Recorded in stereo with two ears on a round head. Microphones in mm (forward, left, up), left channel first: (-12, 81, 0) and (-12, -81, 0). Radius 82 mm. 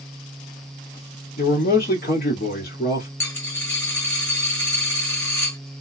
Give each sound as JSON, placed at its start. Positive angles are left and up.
{"t": 1.4, "sound": "a man speaking", "side_deg": 50, "distance_m": 1.5}
{"t": 3.2, "sound": "a dropped coin", "side_deg": 10, "distance_m": 1.3}